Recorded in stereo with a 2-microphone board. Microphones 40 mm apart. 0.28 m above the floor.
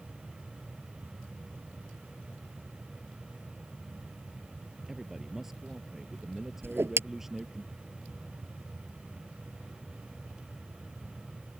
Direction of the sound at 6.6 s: 80° right.